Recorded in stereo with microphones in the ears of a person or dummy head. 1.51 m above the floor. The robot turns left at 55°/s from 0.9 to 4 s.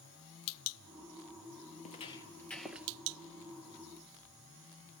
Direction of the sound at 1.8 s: 40° left (ahead or behind).